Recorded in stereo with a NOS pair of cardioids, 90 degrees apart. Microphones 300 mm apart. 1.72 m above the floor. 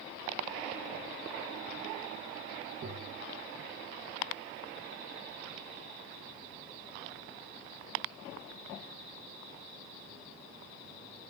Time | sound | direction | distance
2.8 | tapping | 45° right | 2.5 m